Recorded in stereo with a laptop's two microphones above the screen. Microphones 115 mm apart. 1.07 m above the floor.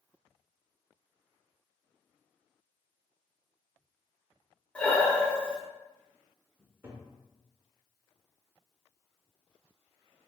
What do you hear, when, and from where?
4.8 s breathing: 10° left (ahead or behind), 0.7 m
6.6 s a cupboard door: 20° right (ahead or behind), 0.9 m